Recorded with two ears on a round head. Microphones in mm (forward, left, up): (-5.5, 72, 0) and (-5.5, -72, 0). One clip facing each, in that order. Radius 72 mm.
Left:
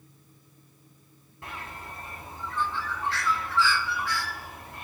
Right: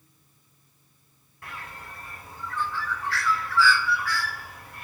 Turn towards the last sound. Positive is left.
turn(degrees=20)  # may be behind; listen again after turning